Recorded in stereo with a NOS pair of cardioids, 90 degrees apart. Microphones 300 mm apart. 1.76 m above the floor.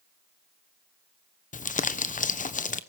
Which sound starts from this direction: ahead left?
Crumpling, at 1.5 s.